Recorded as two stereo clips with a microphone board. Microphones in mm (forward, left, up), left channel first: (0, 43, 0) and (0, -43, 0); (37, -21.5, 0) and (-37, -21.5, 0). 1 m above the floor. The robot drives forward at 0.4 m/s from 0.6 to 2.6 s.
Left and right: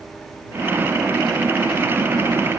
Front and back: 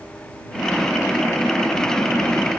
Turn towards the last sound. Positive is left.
No sound to turn to.